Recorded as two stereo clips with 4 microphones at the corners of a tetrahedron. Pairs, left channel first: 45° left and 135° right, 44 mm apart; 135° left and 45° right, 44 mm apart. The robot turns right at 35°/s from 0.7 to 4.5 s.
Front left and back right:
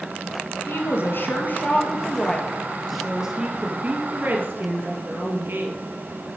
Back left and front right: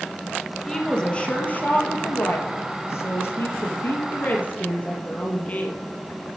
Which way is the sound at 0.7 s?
55° left.